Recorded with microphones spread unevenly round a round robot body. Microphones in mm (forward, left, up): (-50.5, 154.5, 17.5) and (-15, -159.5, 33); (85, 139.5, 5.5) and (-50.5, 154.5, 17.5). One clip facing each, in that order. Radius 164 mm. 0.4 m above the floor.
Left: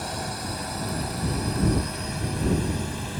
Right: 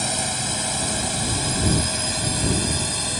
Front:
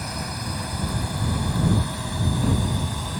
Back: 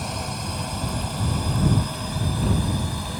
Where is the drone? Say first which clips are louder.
Right 3 dB, back 1 dB; 110° right; by 3.2 s 95° right.